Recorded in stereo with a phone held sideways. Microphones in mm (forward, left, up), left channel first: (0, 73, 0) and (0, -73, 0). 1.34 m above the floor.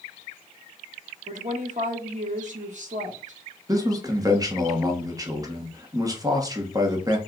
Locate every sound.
1.3 s a woman speaking: 55° right (ahead or behind), 1.4 m
3.7 s a man speaking: 25° right (ahead or behind), 1.2 m